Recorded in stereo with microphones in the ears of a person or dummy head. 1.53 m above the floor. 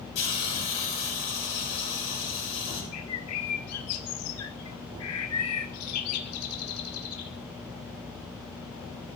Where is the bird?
80° left, 1.4 m.